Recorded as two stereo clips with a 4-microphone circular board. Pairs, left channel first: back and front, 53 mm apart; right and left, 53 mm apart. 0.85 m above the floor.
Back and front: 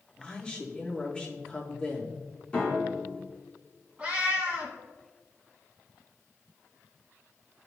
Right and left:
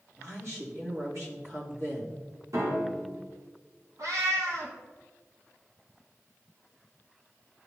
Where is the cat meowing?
70° left, 1.8 m.